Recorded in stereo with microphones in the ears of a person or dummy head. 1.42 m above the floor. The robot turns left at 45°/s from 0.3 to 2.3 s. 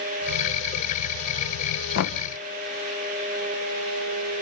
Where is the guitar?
No guitar in this recording.